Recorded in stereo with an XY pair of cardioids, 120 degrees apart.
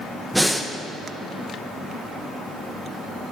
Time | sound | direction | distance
0.3 | breathing | 5° right | 1.2 m